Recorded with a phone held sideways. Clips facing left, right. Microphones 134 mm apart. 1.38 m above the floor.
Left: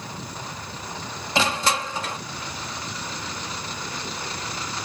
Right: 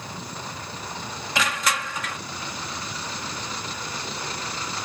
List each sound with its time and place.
1.4 s crushing: 30° left (ahead or behind)